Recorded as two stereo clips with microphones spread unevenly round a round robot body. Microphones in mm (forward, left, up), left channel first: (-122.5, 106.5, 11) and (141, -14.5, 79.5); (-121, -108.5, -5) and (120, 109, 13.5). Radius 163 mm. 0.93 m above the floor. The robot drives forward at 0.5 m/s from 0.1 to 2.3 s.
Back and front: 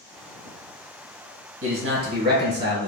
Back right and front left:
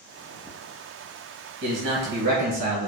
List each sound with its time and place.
1.6 s a man speaking: 5° left, 1.1 m; by 2.9 s 15° left, 0.9 m